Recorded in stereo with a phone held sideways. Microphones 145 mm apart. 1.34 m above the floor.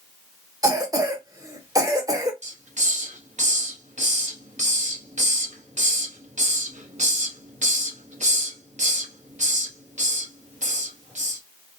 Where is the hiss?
55° right (ahead or behind), 0.8 m.